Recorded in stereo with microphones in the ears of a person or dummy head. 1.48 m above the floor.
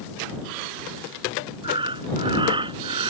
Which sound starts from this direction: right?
Breathing, at 1.6 s.